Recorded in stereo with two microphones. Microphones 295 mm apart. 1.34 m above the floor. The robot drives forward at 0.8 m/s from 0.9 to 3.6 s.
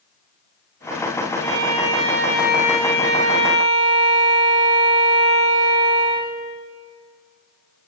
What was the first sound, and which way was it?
A violin, 50° left (ahead or behind).